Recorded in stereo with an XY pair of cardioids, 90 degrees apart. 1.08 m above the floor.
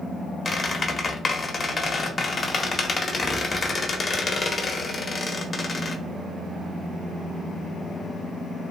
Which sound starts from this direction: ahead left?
A squeak, at 0.5 s.